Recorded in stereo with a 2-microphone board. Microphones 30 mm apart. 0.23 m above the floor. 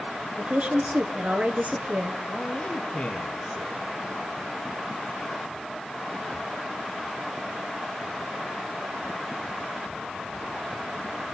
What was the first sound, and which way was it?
A woman speaking, 45° right (ahead or behind).